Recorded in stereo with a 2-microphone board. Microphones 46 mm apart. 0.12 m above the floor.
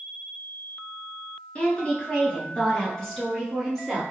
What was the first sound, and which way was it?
A woman speaking, 25° left (ahead or behind).